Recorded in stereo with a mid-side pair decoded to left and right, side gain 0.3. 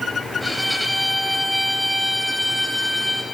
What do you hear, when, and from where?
0.4 s a violin: 10° right, 1.2 m